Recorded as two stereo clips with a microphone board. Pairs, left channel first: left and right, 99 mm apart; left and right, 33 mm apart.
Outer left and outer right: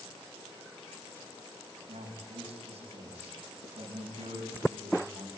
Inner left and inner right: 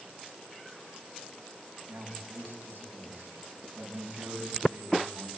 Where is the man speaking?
70° right (ahead or behind), 6 m.